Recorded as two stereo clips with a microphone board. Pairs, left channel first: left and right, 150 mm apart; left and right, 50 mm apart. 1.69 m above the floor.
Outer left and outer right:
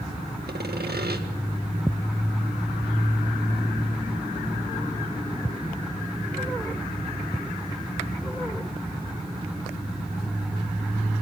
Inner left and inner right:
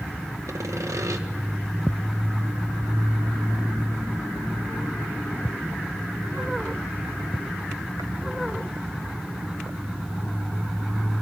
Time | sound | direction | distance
0.5 | sawing | 85° right | 1.8 m